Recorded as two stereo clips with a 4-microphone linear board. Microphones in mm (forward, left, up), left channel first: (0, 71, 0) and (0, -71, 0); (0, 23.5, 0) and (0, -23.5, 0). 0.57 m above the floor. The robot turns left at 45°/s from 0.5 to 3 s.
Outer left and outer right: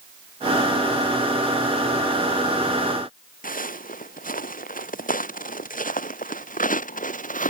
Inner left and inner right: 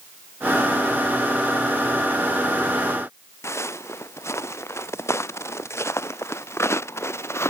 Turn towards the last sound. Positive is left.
turn(degrees=75)  # may be behind; listen again after turning